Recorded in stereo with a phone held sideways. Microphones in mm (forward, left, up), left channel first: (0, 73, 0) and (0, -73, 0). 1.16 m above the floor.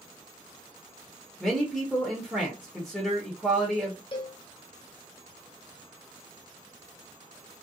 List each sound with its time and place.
1.4 s a man speaking: 5° left (ahead or behind), 0.9 m
4.1 s a cowbell: 35° left (ahead or behind), 0.6 m